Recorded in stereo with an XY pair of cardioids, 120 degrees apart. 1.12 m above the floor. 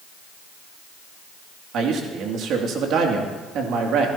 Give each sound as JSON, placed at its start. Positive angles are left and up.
{"t": 1.7, "sound": "a man speaking", "azimuth_deg": -65, "distance_m": 2.5}